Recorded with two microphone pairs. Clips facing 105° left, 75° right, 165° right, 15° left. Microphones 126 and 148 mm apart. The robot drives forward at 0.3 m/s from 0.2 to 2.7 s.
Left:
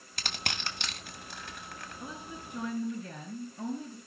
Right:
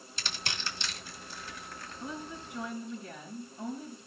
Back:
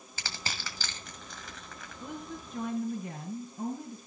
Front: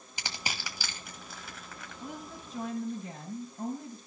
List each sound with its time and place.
0.2 s crushing: 85° left, 1.9 m; by 2.0 s 105° left, 2.0 m
2.0 s a woman speaking: 160° left, 5 m